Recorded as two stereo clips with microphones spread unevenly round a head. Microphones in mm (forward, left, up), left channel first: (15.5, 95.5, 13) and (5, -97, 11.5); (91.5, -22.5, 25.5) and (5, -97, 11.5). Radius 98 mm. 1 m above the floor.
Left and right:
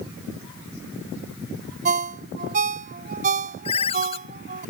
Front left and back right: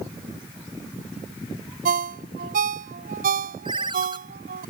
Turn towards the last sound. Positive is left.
turn(degrees=150)